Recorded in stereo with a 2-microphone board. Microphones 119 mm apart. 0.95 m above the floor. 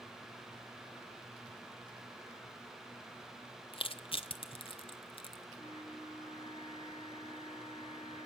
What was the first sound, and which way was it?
Crushing, 50° left (ahead or behind).